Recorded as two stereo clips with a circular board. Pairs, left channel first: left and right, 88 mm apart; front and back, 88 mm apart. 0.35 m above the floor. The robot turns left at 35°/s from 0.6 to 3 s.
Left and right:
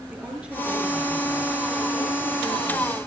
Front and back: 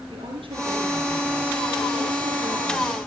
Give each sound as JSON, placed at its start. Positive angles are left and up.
{"t": 0.1, "sound": "a woman speaking", "azimuth_deg": -165, "distance_m": 6.5}